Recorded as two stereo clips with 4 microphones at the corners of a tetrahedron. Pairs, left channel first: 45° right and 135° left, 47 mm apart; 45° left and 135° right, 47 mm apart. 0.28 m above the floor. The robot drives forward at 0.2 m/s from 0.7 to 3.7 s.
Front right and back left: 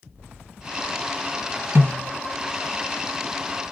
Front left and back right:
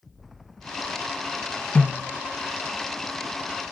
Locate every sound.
1.8 s a snare drum: 105° left, 1.4 m